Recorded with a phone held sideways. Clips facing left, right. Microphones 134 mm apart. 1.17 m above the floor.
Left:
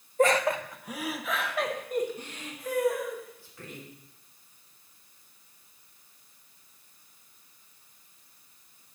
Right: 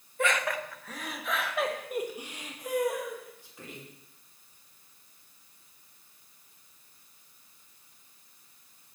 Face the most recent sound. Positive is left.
turn(degrees=-20)  # may be behind; listen again after turning